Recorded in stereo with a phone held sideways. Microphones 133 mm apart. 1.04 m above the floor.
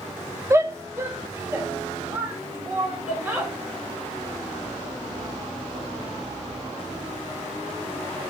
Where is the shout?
20° right (ahead or behind), 0.7 m; by 3.5 s 15° right (ahead or behind), 3.5 m.